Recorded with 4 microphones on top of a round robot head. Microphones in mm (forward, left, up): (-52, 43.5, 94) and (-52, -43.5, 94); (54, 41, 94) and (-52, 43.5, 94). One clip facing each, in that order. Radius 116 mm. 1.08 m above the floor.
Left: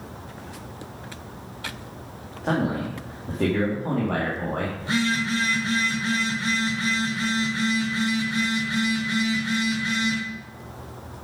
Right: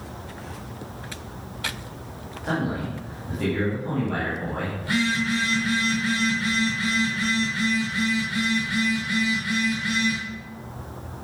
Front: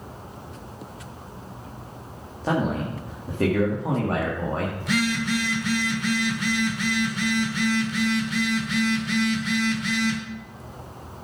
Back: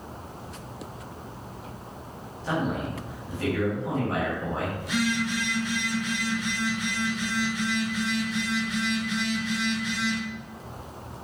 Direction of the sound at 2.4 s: 35° left.